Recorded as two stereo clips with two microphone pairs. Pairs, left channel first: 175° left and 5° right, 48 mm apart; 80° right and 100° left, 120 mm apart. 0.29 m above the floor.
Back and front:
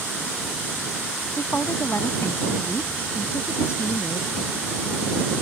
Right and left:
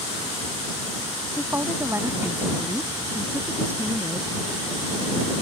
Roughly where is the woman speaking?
Behind.